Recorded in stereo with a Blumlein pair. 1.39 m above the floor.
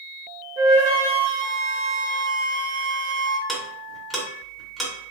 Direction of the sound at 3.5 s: Straight ahead.